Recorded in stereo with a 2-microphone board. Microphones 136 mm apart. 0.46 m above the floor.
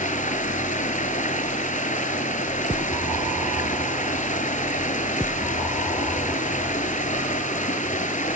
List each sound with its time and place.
0.0 s running water: 75° left (ahead or behind), 1.1 m